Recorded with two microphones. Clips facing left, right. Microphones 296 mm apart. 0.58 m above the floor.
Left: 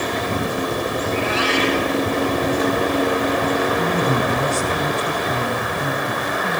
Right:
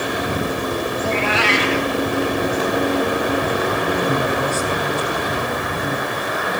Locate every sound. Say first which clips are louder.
1.0 s a cat meowing: even; 80° right, 3 m
3.8 s a man speaking: even; 40° left (ahead or behind), 7.5 m